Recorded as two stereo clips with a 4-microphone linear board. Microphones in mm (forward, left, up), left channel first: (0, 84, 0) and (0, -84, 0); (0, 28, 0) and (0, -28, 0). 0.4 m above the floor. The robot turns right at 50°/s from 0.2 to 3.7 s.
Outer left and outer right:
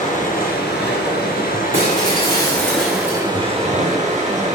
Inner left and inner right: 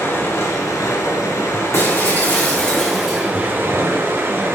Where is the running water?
50° left, 2.5 m; by 4.6 s 135° right, 2.5 m.